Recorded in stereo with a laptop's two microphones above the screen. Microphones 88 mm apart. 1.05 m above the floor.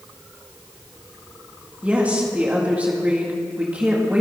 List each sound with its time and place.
1.8 s a woman speaking: 15° right (ahead or behind), 1.9 m